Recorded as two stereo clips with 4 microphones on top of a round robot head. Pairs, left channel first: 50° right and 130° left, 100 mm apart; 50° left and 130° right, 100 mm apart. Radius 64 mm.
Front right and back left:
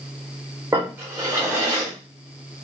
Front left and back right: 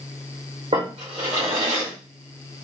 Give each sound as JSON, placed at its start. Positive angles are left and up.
{"t": 0.7, "sound": "a drawer", "azimuth_deg": -165, "distance_m": 1.3}